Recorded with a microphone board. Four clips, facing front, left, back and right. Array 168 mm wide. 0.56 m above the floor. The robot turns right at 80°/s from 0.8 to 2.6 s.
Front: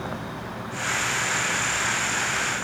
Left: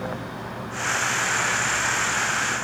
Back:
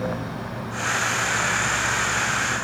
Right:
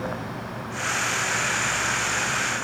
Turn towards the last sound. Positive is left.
No sound to turn to.